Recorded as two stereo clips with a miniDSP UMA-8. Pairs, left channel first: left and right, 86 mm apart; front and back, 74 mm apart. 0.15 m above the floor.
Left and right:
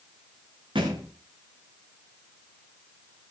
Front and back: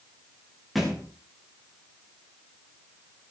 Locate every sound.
0.8 s a thud: 90° right, 5.5 m